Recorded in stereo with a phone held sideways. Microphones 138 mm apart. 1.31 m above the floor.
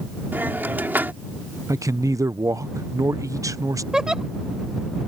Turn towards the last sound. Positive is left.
turn(degrees=-5)  # may be behind; listen again after turning